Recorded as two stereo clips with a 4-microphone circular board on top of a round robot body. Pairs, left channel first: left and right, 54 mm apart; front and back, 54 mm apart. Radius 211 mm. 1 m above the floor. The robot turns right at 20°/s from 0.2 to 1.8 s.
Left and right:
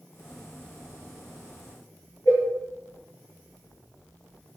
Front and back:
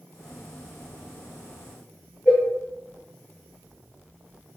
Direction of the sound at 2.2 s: 80° left.